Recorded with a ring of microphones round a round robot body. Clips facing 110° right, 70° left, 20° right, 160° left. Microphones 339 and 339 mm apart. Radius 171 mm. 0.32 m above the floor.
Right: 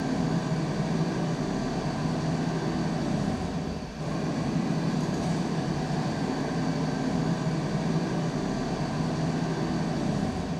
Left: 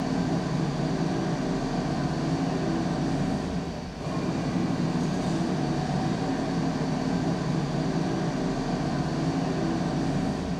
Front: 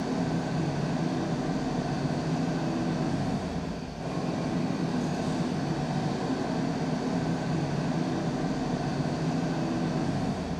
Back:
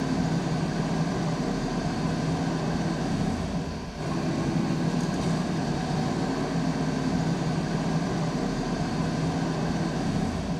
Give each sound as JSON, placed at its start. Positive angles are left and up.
{"t": 0.0, "sound": "an engine running", "azimuth_deg": 165, "distance_m": 0.7}